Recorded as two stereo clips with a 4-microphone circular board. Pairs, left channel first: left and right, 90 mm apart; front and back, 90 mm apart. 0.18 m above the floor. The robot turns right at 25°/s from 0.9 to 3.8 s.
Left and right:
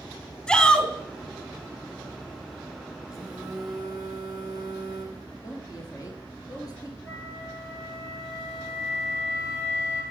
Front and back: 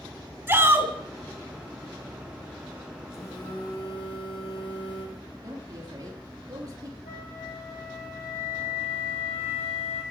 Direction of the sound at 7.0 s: Straight ahead.